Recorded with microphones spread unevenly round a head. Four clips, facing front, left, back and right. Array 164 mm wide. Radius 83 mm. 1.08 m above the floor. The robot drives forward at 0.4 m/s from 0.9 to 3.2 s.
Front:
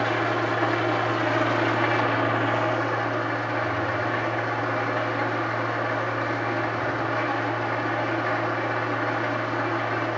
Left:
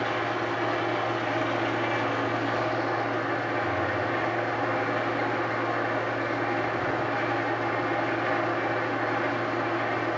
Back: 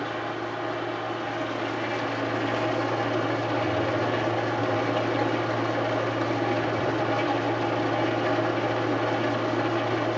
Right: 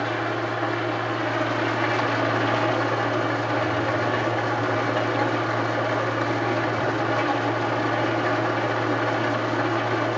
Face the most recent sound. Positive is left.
turn(degrees=-125)